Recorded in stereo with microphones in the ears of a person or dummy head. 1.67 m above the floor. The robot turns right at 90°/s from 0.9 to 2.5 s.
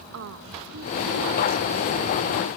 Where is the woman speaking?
75° right; by 2.5 s 70° left.